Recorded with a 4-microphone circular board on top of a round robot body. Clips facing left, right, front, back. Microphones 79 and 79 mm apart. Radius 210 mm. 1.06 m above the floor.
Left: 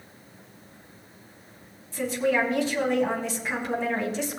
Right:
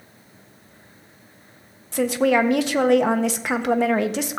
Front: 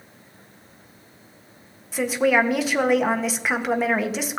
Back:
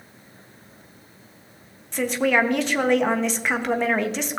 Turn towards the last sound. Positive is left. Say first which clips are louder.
# right 6 dB, front 1 dB
turn(degrees=-85)